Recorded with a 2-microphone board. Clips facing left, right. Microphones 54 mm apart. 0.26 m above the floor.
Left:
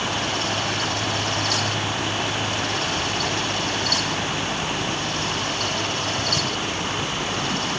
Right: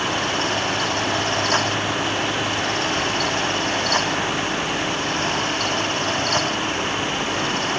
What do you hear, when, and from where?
Only background noise.